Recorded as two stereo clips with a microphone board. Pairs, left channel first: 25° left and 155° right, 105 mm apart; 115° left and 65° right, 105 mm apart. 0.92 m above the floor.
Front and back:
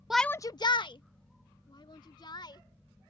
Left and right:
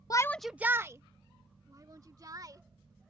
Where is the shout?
120° left; by 2.6 s 20° right.